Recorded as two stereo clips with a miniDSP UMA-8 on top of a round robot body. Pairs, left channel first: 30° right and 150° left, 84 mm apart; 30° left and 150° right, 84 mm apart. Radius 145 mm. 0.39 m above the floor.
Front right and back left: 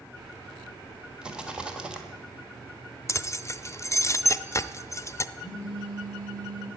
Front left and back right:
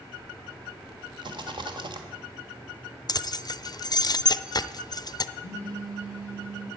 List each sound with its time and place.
1.2 s a rattle: 130° right, 1.3 m
3.1 s keys jangling: 15° left, 0.6 m
5.4 s a phone buzzing: 115° right, 3.5 m